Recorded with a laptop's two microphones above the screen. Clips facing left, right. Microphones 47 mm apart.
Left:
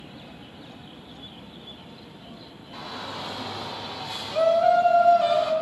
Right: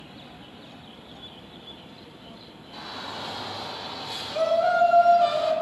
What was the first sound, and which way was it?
A shout, 20° left (ahead or behind).